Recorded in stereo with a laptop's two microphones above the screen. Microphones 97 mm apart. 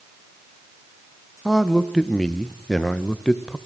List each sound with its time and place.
1.4 s a man speaking: 5° left (ahead or behind), 0.6 m